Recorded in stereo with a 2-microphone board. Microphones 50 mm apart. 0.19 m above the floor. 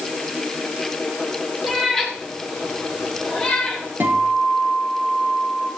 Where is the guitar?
40° right (ahead or behind), 6.5 m.